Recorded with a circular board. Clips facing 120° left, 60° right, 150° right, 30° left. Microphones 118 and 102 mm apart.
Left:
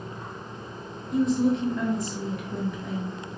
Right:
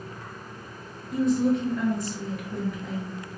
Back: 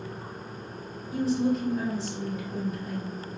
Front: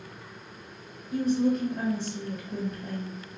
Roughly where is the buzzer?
I don't hear a buzzer.